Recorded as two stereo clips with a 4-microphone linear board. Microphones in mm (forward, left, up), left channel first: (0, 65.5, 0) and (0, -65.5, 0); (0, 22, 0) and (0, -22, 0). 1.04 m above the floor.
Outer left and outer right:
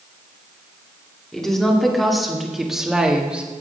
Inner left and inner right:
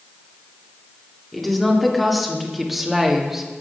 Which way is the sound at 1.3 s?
5° left (ahead or behind).